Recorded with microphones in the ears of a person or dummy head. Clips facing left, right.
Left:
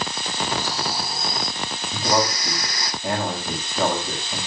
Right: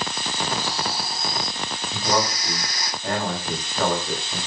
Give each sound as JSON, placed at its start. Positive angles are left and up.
{"t": 0.6, "sound": "snoring", "side_deg": 60, "distance_m": 2.5}
{"t": 1.9, "sound": "a man speaking", "side_deg": 0, "distance_m": 7.0}